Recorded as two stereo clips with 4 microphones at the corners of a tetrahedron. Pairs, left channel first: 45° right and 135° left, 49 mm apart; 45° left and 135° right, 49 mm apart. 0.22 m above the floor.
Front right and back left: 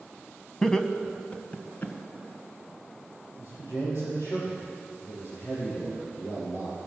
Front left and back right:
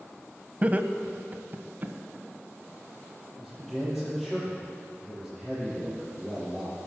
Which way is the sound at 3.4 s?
45° right.